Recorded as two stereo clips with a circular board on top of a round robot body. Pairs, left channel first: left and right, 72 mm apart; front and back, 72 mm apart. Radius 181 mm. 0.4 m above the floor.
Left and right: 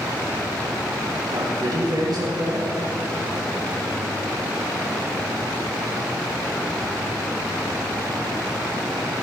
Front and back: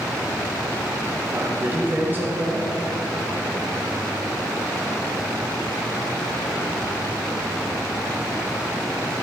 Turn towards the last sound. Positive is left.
turn(degrees=-120)